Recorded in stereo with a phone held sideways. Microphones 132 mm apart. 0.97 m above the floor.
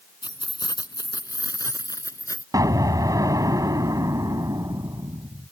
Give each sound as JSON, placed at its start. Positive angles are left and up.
{"t": 0.2, "sound": "keys jangling", "side_deg": 35}
{"t": 2.5, "sound": "an explosion", "side_deg": -25}